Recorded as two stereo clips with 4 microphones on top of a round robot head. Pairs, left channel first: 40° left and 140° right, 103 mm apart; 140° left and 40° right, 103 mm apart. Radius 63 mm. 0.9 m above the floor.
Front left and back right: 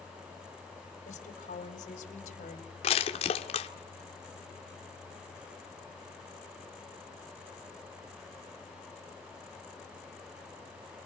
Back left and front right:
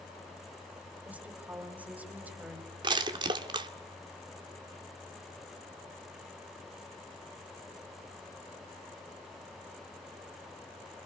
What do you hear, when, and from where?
1.1 s a woman speaking: 35° left, 4 m
2.8 s crushing: 10° left, 2 m